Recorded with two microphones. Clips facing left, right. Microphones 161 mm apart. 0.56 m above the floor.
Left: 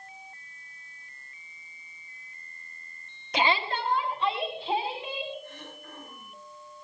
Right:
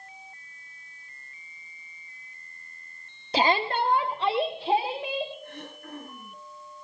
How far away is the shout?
About 0.7 m.